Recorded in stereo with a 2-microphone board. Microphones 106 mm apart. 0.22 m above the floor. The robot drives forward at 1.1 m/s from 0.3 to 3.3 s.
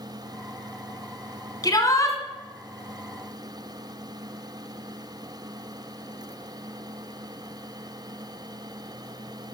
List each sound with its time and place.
1.6 s a shout: 40° left (ahead or behind), 1.9 m; by 2.2 s 30° left (ahead or behind), 2.5 m